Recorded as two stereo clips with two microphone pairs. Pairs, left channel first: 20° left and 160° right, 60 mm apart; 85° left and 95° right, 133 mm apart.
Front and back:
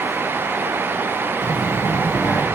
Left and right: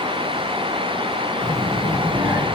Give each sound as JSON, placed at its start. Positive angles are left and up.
{"t": 1.4, "sound": "a child speaking", "azimuth_deg": 15, "distance_m": 1.1}